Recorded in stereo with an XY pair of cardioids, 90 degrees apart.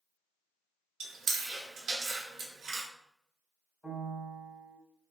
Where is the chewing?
70° right, 0.8 m.